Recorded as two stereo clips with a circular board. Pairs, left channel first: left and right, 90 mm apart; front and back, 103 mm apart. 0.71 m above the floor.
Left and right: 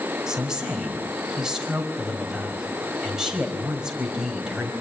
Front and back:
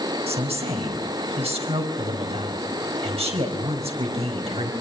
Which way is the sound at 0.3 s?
170° right.